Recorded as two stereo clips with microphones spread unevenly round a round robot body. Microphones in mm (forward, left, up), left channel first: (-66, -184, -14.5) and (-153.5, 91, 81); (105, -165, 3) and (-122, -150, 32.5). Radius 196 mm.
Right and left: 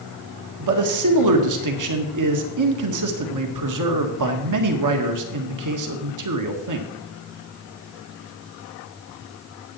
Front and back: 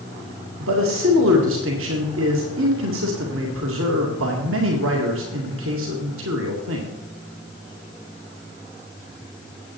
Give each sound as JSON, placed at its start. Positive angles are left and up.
{"t": 0.6, "sound": "a man speaking", "azimuth_deg": 130, "distance_m": 1.9}